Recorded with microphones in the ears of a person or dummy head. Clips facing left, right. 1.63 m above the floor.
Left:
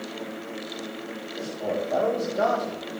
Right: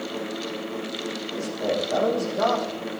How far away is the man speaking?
About 2.5 m.